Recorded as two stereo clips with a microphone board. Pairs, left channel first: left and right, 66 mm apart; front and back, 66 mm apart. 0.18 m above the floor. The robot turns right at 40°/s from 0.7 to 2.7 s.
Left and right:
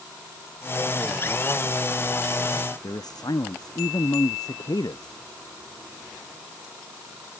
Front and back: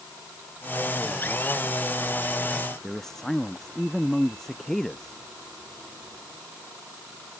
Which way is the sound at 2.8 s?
85° left.